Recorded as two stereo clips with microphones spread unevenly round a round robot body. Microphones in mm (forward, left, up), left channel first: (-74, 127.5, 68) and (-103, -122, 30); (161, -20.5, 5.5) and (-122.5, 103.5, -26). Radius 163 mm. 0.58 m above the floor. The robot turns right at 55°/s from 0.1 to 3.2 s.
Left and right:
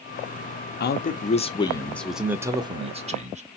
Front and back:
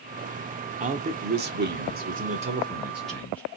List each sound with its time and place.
0.8 s a man speaking: 115° left, 0.8 m; by 3.4 s 115° right, 0.8 m